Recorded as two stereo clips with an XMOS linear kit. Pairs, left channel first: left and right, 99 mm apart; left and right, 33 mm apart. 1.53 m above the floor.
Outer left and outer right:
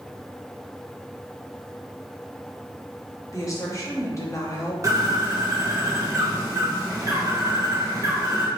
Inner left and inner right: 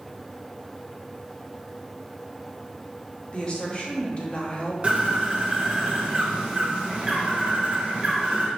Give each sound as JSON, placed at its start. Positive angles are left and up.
{"t": 3.3, "sound": "a woman speaking", "side_deg": 35, "distance_m": 1.0}
{"t": 4.8, "sound": "a bird", "side_deg": -35, "distance_m": 1.0}